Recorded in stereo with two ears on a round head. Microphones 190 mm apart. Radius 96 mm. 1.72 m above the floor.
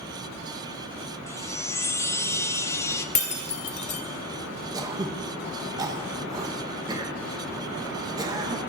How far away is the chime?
About 0.7 m.